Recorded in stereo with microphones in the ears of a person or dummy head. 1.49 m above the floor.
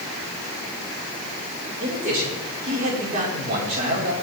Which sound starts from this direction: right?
A man speaking, at 1.8 s.